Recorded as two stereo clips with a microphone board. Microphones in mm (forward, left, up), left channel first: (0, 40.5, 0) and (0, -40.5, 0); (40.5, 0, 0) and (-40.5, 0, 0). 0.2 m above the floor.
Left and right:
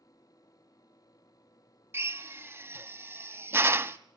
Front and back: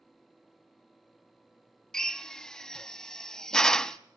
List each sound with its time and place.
1.9 s a drill: 75° right, 0.6 m